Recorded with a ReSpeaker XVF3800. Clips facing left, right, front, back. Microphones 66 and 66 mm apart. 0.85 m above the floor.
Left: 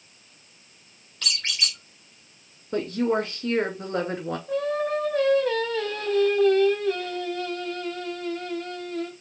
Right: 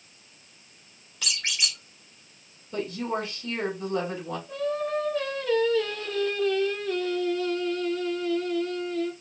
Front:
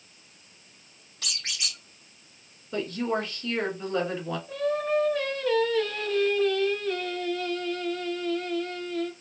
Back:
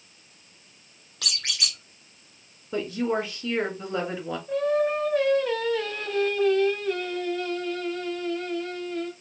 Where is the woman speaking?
110° left, 1.7 m.